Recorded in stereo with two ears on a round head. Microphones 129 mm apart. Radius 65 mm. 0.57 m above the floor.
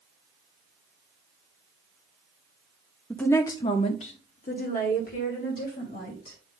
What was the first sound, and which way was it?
A woman speaking, 5° left (ahead or behind).